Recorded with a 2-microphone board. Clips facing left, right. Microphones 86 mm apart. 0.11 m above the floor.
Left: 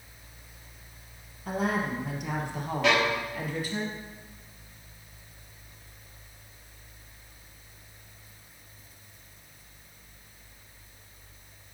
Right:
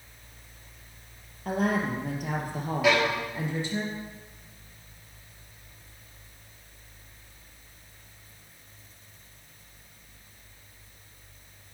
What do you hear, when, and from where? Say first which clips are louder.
1.4 s a woman speaking: right 2 dB; 55° right (ahead or behind), 2.5 m; by 3.8 s 25° right (ahead or behind), 2.5 m
2.8 s a violin: right 1 dB; 5° right (ahead or behind), 4 m